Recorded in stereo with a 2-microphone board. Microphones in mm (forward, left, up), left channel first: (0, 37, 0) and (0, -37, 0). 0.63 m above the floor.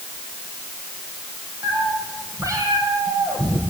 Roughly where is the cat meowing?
Right.